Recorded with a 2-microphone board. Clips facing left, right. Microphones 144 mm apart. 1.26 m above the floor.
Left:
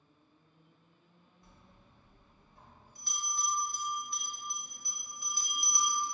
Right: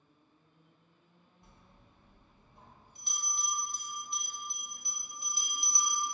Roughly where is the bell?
Right.